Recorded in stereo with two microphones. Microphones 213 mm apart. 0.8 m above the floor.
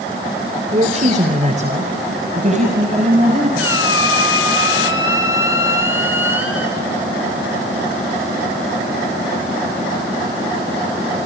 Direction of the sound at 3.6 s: 85° left.